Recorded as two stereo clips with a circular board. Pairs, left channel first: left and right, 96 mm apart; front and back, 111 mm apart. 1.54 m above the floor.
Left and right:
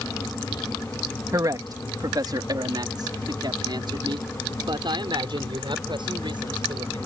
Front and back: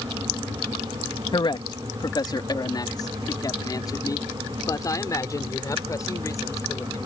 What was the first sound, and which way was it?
A man speaking, 40° right.